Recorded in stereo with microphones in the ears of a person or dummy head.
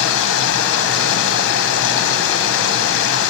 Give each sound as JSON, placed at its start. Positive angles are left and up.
{"t": 0.0, "sound": "running water", "side_deg": 75, "distance_m": 1.1}